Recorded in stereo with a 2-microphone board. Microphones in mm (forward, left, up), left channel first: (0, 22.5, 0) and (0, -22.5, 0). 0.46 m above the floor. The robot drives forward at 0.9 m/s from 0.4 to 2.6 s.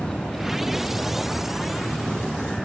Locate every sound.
0.0 s a vehicle: 15° left (ahead or behind); by 2.6 s 5° left (ahead or behind)